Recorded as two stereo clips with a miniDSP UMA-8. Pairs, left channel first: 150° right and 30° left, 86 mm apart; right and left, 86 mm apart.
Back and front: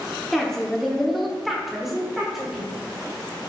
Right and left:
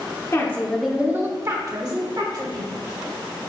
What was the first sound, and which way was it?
A woman speaking, 65° right.